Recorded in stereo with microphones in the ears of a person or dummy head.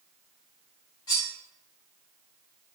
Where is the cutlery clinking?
20° left (ahead or behind), 1.5 m.